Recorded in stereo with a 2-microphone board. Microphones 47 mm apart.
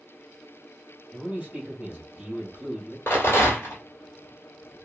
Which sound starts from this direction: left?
A rattle, at 3.1 s.